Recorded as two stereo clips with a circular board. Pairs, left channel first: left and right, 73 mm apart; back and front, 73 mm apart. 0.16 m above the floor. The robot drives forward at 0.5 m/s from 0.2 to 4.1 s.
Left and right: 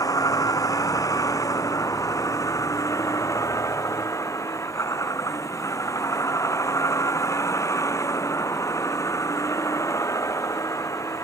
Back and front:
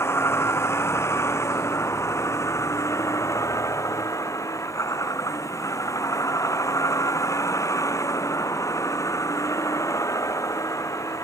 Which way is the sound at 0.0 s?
125° left.